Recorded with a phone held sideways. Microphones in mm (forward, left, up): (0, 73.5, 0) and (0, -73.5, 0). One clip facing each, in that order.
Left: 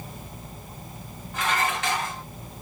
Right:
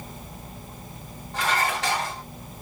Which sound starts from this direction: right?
Dishes clattering, at 1.3 s.